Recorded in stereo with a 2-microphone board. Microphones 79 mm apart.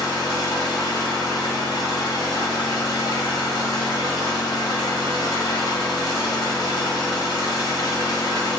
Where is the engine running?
70° left (ahead or behind), 1.2 m.